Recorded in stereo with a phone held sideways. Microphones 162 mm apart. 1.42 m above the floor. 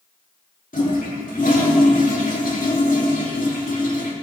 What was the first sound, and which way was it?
A toilet flushing, 55° left (ahead or behind).